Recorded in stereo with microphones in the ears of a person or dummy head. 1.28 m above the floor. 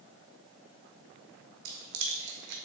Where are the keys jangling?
60° right (ahead or behind), 0.8 m.